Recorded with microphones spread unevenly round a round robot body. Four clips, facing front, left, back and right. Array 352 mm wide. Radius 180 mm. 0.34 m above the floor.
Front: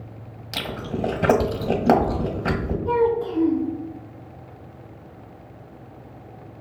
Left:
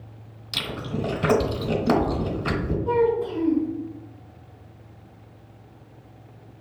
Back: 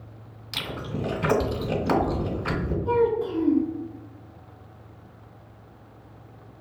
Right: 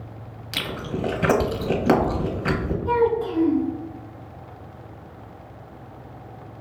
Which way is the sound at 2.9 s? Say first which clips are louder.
Right 1 dB, front 2 dB; 130° right.